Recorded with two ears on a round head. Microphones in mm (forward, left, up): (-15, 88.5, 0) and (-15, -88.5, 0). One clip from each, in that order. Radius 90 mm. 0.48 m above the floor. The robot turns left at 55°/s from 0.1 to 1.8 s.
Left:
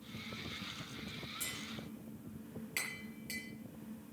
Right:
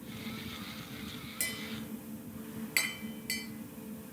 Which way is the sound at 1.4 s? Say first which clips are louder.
Right 10 dB; 55° right (ahead or behind).